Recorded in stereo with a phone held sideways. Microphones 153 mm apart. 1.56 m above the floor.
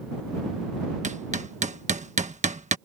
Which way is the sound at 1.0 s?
50° right (ahead or behind).